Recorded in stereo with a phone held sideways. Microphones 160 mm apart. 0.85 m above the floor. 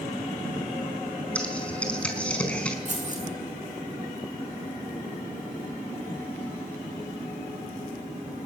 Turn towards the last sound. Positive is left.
turn(degrees=-50)  # may be behind; listen again after turning